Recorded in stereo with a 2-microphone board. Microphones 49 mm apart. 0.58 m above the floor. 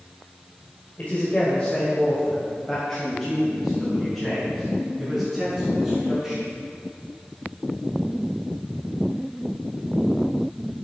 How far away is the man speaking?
About 2 m.